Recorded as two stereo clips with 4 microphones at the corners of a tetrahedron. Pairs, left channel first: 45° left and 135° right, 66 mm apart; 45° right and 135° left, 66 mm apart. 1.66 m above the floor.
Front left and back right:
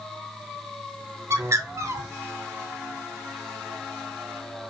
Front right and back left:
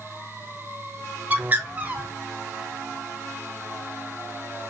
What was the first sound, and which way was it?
A bird, 165° right.